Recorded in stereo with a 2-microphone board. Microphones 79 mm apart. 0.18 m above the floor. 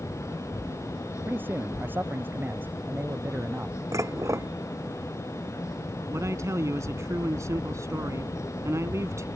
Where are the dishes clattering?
40° right (ahead or behind).